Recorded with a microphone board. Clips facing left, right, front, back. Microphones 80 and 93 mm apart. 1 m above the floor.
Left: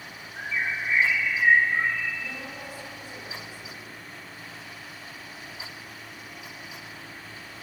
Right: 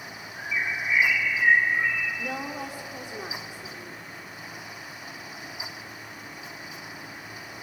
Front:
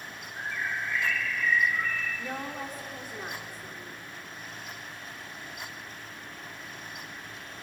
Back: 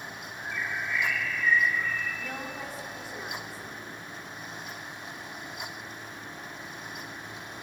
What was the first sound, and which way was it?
A bird, 35° left.